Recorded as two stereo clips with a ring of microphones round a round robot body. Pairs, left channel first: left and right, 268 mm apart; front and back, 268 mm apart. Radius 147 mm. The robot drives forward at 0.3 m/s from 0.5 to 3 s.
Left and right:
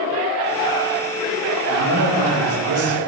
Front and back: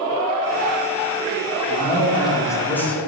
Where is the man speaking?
65° right, 1.4 m; by 3.0 s 85° right, 1.4 m.